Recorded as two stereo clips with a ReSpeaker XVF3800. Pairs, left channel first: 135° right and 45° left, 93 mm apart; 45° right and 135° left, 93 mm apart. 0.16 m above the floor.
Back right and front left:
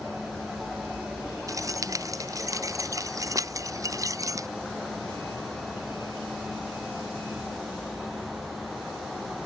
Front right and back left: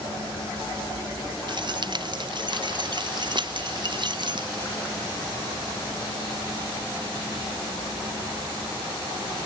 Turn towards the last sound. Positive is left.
turn(degrees=100)